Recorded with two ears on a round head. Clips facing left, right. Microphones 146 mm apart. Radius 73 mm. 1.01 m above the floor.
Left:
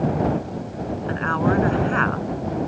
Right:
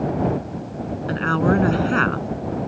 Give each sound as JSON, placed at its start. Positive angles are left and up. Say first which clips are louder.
{"t": 1.1, "sound": "a woman speaking", "louder": "right 3 dB", "side_deg": -45}